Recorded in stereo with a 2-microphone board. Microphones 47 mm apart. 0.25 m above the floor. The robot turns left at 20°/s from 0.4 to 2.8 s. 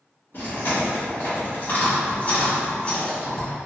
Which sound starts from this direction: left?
Chewing, at 0.3 s.